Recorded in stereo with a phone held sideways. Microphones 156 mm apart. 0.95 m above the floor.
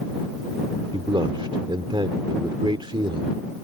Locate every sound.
0.9 s a man speaking: 35° right (ahead or behind)